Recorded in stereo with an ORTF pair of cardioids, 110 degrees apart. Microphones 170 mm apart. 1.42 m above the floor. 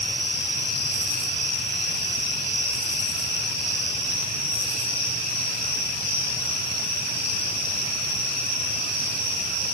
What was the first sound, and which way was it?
Only background noise.